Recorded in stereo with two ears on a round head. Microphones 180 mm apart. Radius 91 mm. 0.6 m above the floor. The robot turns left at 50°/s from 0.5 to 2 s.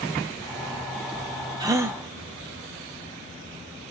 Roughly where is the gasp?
Centre.